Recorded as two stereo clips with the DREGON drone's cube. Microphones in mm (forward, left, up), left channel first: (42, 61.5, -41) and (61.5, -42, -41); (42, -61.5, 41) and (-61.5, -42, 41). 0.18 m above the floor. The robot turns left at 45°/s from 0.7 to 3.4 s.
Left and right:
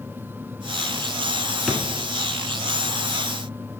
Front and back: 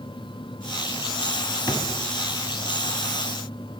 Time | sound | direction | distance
1.7 | a drawer | 10° left | 0.8 m